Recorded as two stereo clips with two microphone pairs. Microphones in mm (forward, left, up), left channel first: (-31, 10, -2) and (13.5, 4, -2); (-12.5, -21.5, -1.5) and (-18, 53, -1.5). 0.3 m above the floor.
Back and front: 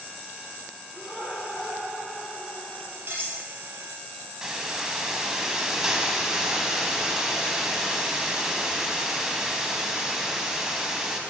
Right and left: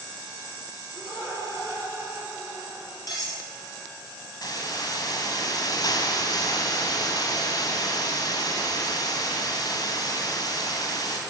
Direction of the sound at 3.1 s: 45° right.